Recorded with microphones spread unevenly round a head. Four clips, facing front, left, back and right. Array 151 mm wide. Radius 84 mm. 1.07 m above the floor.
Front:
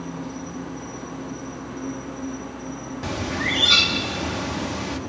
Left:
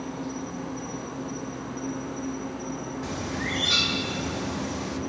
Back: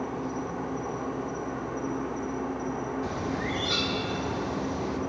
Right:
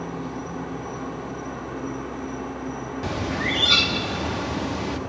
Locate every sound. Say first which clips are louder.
0.0 s an insect: right 2 dB, back 1 dB; 145° right, 2 m
3.0 s a bird: right 7 dB, front 3 dB; 30° right, 1.9 m